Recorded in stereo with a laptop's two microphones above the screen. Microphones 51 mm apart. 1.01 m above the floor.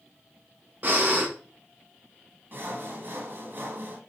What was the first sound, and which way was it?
Breathing, 45° right (ahead or behind).